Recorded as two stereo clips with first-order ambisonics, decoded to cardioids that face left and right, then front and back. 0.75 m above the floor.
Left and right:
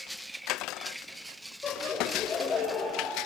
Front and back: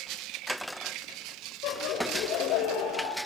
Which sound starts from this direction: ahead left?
Laughter, at 1.6 s.